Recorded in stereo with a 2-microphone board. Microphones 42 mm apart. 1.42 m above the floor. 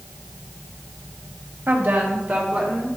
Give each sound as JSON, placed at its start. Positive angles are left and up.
{"t": 1.7, "sound": "a woman speaking", "side_deg": -45, "distance_m": 1.1}